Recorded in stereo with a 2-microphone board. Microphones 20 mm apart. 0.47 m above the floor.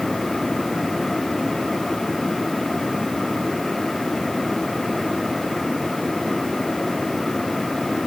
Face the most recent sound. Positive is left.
No sound to turn to.